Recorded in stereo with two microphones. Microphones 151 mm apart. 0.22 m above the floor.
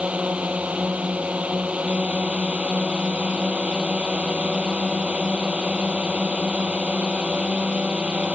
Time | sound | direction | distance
0.0 | a drone | 10° right (ahead or behind) | ?